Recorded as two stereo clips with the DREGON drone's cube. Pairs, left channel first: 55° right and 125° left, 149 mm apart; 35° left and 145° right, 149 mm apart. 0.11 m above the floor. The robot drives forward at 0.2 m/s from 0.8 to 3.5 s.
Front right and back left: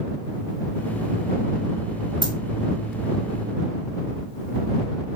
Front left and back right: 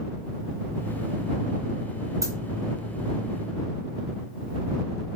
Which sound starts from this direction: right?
A dropped coin, at 2.2 s.